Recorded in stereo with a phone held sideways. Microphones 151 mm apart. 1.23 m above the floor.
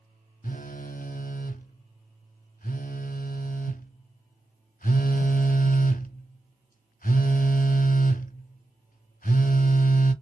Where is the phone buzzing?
70° left (ahead or behind), 0.5 m.